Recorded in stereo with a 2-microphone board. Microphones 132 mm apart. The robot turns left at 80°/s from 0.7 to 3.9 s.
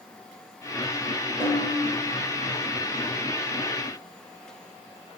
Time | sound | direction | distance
1.4 | a snare drum | 105° right | 1.1 m